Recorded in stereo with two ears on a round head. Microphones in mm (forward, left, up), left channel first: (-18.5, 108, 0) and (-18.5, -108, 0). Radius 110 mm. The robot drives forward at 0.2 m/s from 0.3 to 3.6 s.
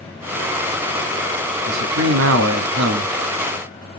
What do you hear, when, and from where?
1.7 s a man speaking: 60° right (ahead or behind), 1.1 m; by 3.1 s 50° right (ahead or behind), 1.2 m